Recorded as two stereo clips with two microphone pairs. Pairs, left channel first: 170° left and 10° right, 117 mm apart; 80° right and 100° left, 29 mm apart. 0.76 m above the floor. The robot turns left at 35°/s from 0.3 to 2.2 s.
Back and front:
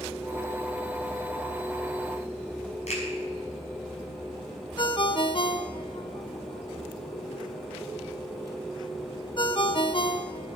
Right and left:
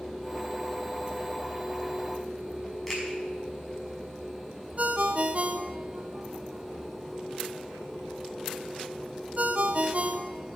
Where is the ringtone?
130° left, 0.8 m.